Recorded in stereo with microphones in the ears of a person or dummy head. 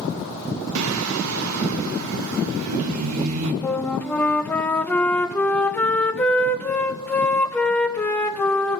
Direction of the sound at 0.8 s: 75° right (ahead or behind).